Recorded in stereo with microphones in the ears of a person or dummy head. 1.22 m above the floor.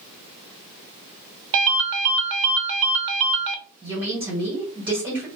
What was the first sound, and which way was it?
A ringtone, 65° right (ahead or behind).